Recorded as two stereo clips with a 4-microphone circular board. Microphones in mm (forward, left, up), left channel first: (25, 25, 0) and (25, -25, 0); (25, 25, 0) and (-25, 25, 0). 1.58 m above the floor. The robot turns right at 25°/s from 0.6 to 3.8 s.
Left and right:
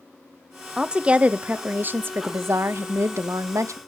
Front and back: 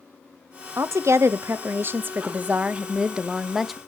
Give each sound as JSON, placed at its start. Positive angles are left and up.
{"t": 0.8, "sound": "a woman speaking", "azimuth_deg": -165, "distance_m": 0.7}